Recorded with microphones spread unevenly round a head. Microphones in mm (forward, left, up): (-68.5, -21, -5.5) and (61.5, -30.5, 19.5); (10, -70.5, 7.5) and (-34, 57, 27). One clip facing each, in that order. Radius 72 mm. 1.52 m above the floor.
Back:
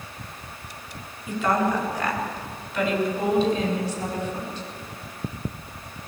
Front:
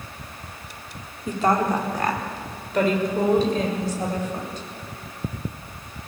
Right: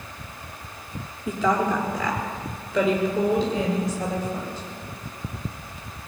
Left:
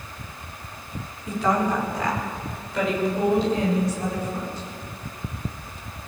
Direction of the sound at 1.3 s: 55° right.